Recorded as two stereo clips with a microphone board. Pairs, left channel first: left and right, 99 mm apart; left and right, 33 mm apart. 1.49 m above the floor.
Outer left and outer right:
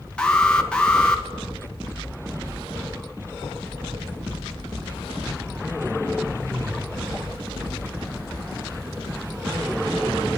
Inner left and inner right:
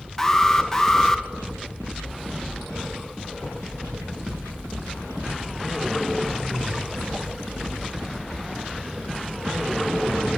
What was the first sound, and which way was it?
An alarm, 10° left (ahead or behind).